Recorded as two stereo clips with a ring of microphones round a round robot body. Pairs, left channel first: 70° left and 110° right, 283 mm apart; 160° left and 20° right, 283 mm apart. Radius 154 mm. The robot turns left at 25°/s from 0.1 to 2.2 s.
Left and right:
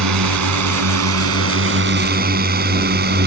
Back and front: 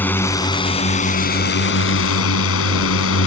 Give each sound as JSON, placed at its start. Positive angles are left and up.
{"t": 0.0, "sound": "a drone", "azimuth_deg": -120}